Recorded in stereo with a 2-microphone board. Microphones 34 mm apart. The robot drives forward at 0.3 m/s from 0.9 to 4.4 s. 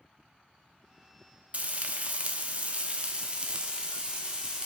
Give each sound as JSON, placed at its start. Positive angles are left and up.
{"t": 1.5, "sound": "frying", "side_deg": -45, "distance_m": 0.7}